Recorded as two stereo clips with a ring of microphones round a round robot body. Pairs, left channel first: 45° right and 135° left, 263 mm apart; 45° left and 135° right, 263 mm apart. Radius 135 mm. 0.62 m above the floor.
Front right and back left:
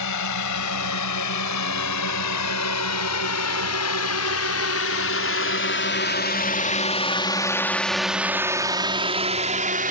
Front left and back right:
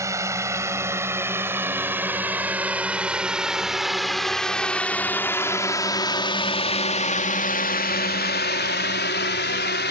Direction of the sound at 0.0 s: 55° right.